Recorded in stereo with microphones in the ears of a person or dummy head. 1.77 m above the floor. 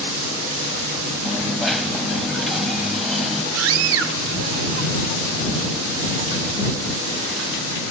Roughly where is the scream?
Right.